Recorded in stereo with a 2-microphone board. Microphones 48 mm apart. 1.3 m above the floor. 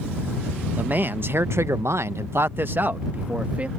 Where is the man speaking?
35° right (ahead or behind); by 3.7 s 30° right (ahead or behind).